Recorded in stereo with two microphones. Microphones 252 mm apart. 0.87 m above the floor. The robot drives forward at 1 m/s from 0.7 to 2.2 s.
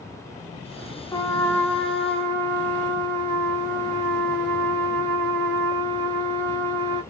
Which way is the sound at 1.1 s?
15° left (ahead or behind).